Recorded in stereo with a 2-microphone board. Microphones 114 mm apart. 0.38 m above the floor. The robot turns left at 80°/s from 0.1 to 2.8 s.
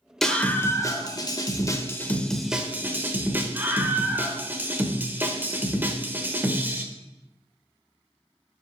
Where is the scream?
175° left, 1.1 m; by 6.8 s 35° right, 1.1 m.